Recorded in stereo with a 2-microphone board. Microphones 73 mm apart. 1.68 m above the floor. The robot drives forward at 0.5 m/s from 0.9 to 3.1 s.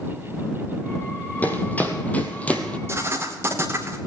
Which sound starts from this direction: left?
Running footsteps, at 1.4 s.